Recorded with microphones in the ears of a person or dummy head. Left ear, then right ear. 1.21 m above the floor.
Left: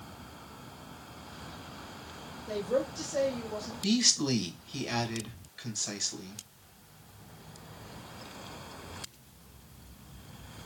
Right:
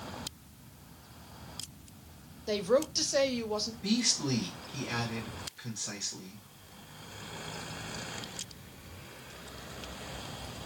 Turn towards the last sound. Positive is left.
turn(degrees=40)  # may be behind; listen again after turning